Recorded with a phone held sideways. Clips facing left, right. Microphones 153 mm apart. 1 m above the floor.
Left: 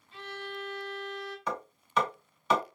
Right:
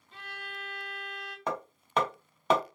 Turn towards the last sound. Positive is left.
turn(degrees=-50)  # may be behind; listen again after turning